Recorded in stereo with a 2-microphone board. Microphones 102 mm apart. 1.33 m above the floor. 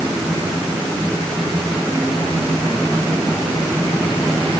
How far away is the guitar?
No guitar in this recording.